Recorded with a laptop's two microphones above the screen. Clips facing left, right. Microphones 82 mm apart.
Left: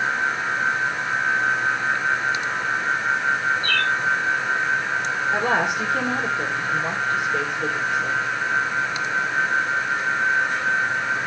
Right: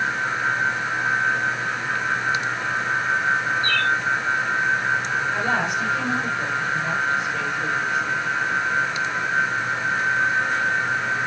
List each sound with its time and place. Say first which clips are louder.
3.6 s a bird: right 1 dB; 30° right (ahead or behind), 3 m
5.3 s a woman speaking: left 4 dB; 75° left (ahead or behind), 3 m